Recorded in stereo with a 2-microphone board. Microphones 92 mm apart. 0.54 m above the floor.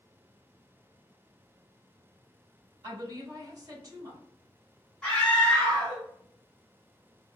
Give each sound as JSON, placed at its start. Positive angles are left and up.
{"t": 2.8, "sound": "a woman speaking", "side_deg": -40, "distance_m": 1.4}
{"t": 5.0, "sound": "a scream", "side_deg": 10, "distance_m": 1.3}